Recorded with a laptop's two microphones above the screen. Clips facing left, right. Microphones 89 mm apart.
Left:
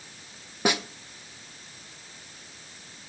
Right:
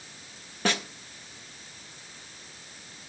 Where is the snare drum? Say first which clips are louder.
Left 2 dB; 15° left (ahead or behind), 0.6 m.